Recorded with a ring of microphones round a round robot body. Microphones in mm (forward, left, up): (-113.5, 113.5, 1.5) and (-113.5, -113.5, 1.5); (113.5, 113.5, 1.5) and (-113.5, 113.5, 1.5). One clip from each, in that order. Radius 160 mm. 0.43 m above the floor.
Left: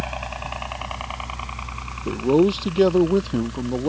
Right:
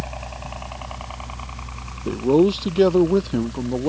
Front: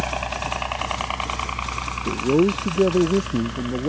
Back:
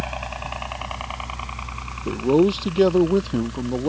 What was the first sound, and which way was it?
A helicopter, 50° left.